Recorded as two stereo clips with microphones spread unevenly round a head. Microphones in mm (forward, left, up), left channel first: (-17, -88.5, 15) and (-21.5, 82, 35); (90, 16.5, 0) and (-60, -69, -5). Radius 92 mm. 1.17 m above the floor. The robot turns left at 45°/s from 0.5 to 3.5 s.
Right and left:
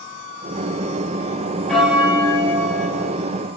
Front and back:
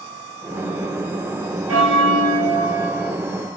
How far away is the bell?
About 3 m.